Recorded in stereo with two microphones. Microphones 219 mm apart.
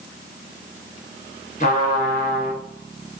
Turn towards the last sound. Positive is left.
turn(degrees=40)  # may be behind; listen again after turning